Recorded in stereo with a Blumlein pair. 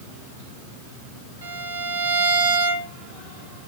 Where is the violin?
60° right, 1.2 m.